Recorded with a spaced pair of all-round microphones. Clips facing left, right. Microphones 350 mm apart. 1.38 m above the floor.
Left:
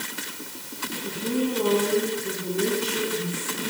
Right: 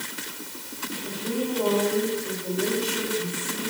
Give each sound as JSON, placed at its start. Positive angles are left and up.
{"t": 1.0, "sound": "a woman speaking", "side_deg": 45, "distance_m": 6.0}